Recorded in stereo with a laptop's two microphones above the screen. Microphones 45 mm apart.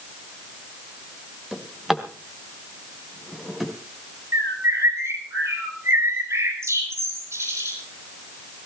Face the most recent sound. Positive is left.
turn(degrees=-75)  # may be behind; listen again after turning